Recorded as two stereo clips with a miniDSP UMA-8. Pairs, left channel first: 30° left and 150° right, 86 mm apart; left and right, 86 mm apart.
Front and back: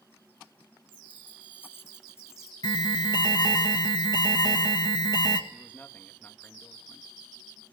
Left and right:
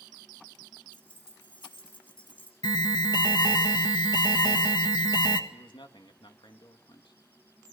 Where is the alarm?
60° left, 1.8 m.